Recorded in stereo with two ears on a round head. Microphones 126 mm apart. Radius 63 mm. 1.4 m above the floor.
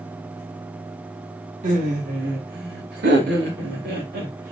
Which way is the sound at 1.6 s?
55° right (ahead or behind).